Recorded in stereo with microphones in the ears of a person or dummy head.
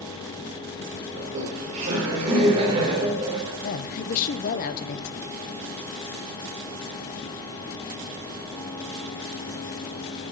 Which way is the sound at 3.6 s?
50° left (ahead or behind).